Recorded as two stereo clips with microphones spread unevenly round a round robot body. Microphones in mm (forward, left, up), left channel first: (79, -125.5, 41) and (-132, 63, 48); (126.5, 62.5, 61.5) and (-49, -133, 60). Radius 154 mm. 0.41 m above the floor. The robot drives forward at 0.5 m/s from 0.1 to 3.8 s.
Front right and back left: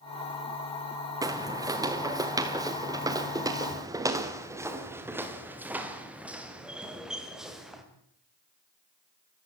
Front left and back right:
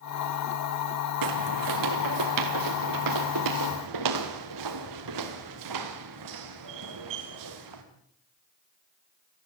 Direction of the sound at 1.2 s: 145° right.